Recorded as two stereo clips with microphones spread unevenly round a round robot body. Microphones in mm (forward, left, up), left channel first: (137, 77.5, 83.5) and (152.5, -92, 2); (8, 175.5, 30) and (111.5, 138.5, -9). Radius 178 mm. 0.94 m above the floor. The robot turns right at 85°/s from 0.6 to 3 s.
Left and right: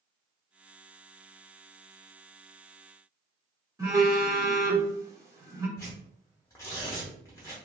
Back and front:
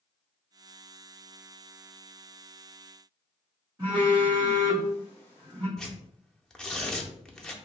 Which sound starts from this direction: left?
Tearing paper, at 5.8 s.